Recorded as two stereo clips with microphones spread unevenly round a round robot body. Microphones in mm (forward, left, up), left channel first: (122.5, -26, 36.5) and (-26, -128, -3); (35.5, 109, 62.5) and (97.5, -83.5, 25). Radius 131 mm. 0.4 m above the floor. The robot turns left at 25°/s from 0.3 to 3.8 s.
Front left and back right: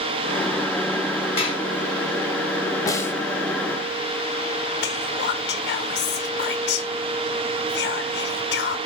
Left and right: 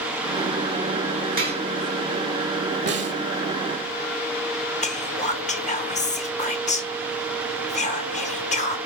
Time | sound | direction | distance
1.4 | dishes clattering | 25° right | 5 m
2.9 | a snare drum | 45° right | 1.4 m
4.8 | whispering | 50° left | 1.0 m